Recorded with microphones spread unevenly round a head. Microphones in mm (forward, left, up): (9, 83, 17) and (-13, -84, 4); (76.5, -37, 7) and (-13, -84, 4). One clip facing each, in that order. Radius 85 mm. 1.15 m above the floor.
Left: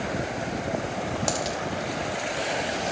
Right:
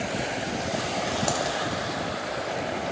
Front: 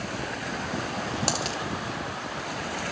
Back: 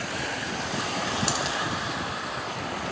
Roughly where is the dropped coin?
Ahead.